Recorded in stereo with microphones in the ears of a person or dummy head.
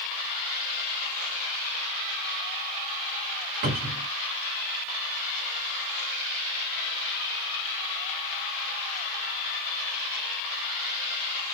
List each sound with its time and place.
3.6 s a cupboard door: 45° right (ahead or behind), 1.9 m